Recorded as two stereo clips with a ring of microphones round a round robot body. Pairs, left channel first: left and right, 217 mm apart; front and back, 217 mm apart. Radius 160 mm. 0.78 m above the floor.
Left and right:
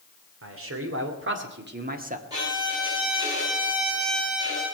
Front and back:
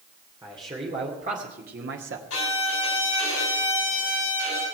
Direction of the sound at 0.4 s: 105° right.